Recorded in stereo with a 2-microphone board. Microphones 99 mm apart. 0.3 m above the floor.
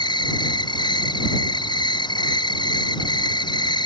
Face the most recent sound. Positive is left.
turn(degrees=50)  # may be behind; listen again after turning